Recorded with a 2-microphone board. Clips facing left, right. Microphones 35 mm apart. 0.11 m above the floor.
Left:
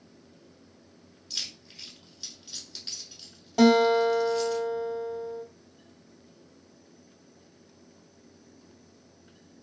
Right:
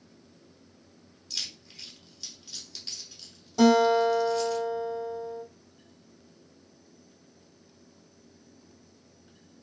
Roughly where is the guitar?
Left.